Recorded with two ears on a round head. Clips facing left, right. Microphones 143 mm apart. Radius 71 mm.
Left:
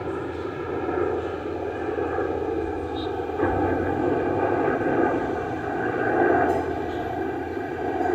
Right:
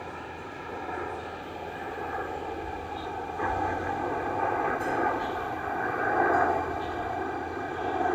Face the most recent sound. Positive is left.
turn(degrees=25)  # may be behind; listen again after turning